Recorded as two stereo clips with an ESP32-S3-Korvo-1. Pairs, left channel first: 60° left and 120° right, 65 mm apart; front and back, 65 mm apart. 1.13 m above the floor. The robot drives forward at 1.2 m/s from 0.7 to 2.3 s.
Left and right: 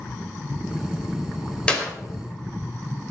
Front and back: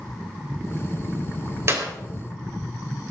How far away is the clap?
About 4.5 m.